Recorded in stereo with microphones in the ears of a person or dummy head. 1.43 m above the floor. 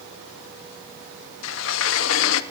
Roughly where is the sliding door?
Left.